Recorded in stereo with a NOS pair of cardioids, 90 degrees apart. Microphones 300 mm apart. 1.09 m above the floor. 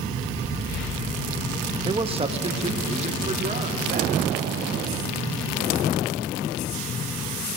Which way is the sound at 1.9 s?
15° right.